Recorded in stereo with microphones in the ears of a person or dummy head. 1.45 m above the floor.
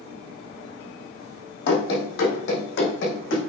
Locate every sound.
1.7 s running footsteps: 60° left (ahead or behind), 3 m; by 3.4 s 75° left (ahead or behind), 5.5 m